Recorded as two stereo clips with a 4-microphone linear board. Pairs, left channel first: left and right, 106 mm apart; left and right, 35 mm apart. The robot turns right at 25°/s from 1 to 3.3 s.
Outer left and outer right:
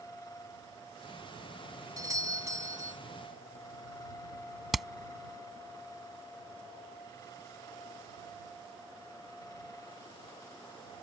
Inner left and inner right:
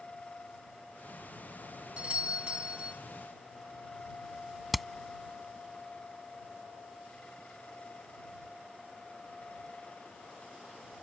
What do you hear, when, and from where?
2.0 s a doorbell: 35° right (ahead or behind); by 3.0 s 30° right (ahead or behind)
4.7 s hammering: centre (ahead or behind)